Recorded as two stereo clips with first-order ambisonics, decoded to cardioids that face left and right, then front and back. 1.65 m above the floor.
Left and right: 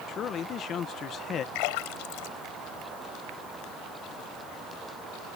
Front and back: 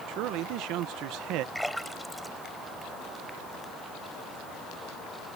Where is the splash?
90° left.